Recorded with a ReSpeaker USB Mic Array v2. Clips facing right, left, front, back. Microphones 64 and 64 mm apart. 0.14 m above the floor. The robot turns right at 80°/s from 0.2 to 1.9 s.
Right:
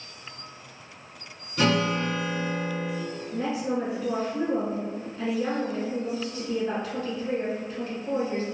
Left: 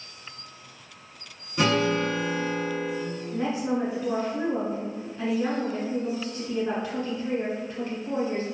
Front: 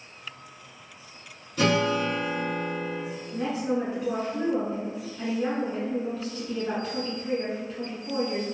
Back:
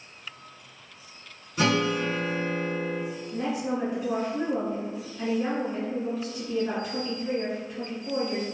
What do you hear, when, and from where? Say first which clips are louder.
1.6 s a guitar: left 1 dB, front 1 dB; 150° left, 1.8 m; by 3.0 s 175° left, 1.8 m
3.3 s a woman speaking: left 1 dB, front 2 dB; 110° left, 1.2 m